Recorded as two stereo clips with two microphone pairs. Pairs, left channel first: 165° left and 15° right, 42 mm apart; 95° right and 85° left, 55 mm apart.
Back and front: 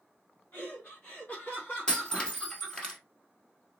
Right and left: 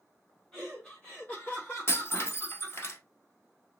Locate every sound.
0.5 s laughter: 170° right, 1.4 m; by 2.9 s 135° right, 3 m
1.9 s breaking glass: 125° right, 1.7 m